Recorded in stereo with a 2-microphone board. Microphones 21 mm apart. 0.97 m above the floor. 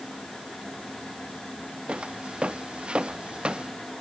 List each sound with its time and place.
1.9 s footsteps: 55° right (ahead or behind)